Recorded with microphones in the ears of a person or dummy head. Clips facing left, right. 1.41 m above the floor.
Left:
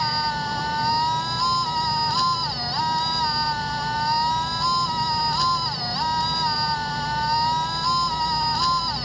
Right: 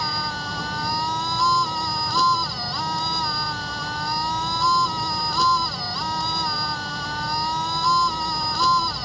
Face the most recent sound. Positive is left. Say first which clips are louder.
# left 4 dB
turn(degrees=-75)  # may be behind; listen again after turning